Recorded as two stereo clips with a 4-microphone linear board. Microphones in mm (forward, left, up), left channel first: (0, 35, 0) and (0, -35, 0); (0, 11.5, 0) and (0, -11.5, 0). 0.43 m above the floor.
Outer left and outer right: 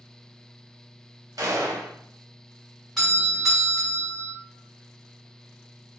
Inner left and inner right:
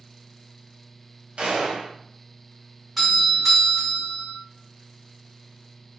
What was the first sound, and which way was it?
A gunshot, 60° right (ahead or behind).